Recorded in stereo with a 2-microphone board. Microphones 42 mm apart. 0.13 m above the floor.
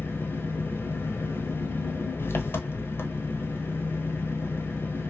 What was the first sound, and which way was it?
An engine running, 60° left (ahead or behind).